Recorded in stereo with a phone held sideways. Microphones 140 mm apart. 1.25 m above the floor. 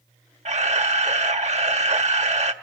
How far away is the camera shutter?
About 1.4 m.